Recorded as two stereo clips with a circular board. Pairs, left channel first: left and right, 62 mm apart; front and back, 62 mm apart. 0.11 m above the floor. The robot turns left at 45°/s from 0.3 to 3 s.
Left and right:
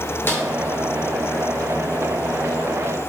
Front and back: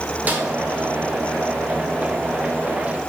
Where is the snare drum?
130° left, 1.7 m; by 0.4 s 120° left, 1.7 m.